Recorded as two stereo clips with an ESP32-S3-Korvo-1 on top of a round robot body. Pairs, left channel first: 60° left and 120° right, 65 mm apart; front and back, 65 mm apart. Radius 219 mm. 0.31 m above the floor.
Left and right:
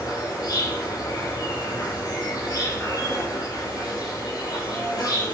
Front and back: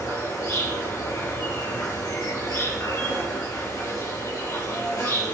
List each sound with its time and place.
0.0 s an insect: 40° left, 5.5 m